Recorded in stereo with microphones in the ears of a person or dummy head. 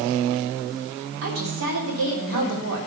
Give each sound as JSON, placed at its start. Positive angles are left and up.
{"t": 1.2, "sound": "a woman speaking", "side_deg": -75, "distance_m": 3.0}